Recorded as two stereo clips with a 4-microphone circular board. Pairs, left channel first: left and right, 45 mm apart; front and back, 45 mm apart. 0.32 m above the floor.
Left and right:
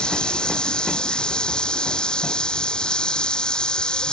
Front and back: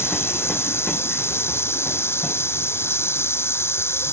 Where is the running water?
20° left.